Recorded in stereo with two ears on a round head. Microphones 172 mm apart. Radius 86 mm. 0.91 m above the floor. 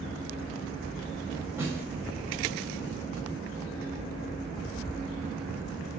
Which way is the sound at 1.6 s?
15° right (ahead or behind).